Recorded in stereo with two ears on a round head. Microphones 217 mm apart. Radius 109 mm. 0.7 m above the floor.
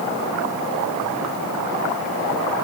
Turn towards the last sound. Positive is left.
No sound to turn to.